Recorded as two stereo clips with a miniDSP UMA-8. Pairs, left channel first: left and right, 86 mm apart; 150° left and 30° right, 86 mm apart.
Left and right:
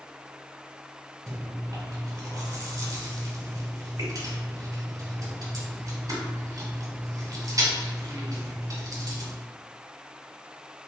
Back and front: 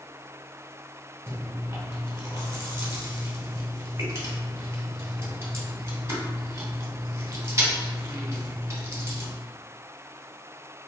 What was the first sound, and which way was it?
Chewing, 70° right.